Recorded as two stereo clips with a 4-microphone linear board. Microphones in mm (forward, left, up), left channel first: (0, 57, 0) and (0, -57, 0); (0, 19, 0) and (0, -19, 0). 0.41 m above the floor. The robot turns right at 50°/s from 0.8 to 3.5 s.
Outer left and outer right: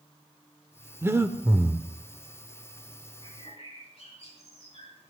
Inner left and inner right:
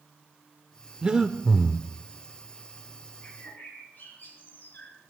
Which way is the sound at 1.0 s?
20° right (ahead or behind).